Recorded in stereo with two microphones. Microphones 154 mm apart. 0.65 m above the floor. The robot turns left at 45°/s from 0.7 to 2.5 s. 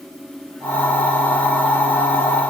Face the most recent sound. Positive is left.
No sound to turn to.